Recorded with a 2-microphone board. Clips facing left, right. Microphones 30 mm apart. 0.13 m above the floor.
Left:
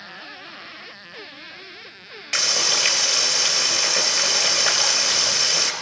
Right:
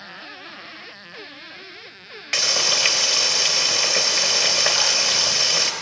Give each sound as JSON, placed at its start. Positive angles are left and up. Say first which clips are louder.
{"t": 2.3, "sound": "frying", "louder": "right 1 dB", "side_deg": -10, "distance_m": 3.0}